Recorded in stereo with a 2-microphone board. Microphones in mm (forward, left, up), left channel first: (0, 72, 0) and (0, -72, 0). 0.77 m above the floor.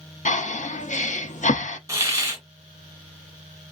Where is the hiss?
20° right (ahead or behind), 1.1 m.